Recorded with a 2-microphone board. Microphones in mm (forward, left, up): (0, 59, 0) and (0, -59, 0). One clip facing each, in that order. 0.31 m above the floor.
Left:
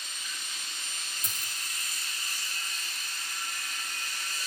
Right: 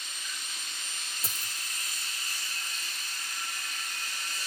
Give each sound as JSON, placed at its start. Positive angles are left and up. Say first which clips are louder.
{"t": 1.2, "sound": "a dropped coin", "louder": "even", "side_deg": -30, "distance_m": 2.5}